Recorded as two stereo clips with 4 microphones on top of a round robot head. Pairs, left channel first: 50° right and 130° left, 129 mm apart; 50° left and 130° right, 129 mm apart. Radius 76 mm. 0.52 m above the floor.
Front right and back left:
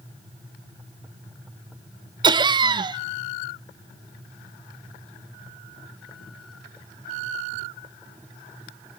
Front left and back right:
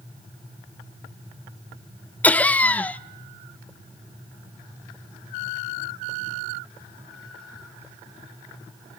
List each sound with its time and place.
2.2 s laughter: 120° left, 0.7 m